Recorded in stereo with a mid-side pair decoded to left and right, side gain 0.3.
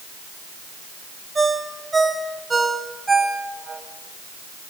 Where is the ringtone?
40° right, 4.5 m.